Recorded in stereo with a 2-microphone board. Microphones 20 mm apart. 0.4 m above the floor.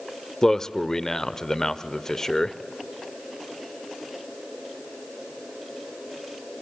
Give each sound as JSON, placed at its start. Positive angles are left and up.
{"t": 0.4, "sound": "a man speaking", "side_deg": 30, "distance_m": 1.0}